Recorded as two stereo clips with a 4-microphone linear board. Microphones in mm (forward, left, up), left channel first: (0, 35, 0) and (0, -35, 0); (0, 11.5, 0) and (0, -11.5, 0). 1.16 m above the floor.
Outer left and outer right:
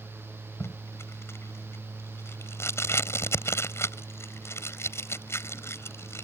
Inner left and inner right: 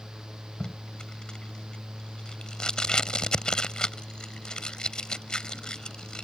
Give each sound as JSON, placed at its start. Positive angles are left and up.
{"t": 0.6, "sound": "tape being pulled", "side_deg": 35}